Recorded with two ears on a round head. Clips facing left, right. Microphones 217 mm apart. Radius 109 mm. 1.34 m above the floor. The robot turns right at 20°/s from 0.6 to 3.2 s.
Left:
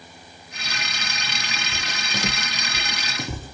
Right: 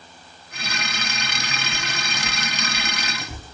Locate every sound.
1.7 s footsteps: 25° left (ahead or behind), 3 m; by 3.5 s 65° left (ahead or behind), 3 m